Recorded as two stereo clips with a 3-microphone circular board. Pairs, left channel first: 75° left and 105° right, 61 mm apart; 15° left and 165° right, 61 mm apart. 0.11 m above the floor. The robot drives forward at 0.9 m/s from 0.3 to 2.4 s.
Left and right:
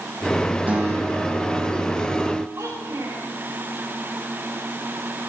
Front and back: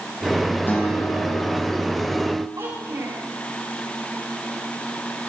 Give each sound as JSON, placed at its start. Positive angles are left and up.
{"t": 0.7, "sound": "a guitar", "azimuth_deg": -40, "distance_m": 4.5}
{"t": 2.6, "sound": "a child speaking", "azimuth_deg": -150, "distance_m": 8.0}